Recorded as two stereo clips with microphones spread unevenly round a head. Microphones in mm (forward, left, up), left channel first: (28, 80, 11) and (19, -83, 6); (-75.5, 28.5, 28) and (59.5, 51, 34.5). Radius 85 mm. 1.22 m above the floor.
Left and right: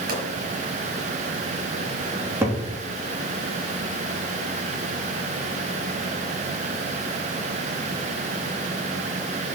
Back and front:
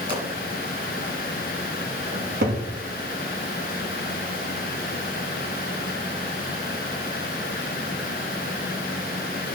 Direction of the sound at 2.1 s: 20° right.